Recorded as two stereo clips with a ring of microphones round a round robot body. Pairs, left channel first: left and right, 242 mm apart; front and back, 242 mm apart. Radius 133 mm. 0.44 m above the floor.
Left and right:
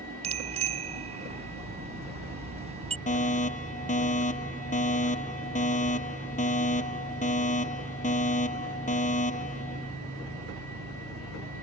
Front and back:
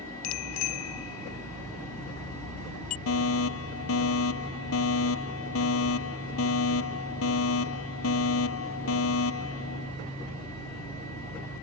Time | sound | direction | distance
0.2 | a bicycle bell | 25° right | ?
3.1 | a fire alarm | 30° left | ?